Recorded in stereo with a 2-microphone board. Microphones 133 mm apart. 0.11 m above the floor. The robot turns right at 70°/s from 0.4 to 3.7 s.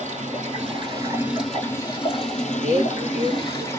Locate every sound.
0.0 s running water: 75° right, 2.5 m; by 3.8 s 155° left, 2.5 m
2.6 s a man speaking: 80° left, 3.5 m; by 3.8 s 155° left, 3.5 m